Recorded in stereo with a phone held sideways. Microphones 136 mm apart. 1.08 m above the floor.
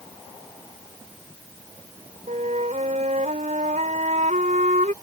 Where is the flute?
65° right (ahead or behind).